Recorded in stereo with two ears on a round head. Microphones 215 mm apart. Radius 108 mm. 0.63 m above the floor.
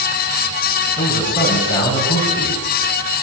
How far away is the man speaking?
About 4 m.